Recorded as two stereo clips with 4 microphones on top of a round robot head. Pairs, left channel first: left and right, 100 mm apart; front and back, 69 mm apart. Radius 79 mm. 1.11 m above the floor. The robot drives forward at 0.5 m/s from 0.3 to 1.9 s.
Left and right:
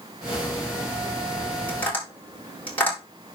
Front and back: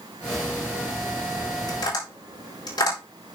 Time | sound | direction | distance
1.7 | tapping | 15° left | 5.5 m